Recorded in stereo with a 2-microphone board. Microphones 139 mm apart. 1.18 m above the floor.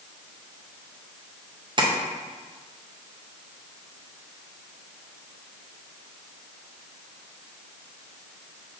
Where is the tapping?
35° right (ahead or behind), 0.6 m.